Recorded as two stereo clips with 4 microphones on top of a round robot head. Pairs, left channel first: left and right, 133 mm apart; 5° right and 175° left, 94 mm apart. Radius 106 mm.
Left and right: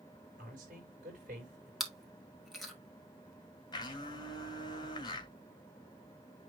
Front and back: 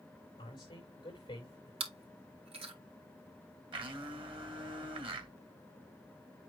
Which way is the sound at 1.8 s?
Straight behind.